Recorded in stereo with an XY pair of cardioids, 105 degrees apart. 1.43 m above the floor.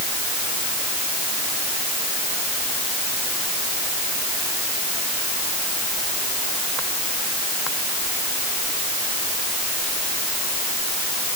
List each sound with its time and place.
Only background noise.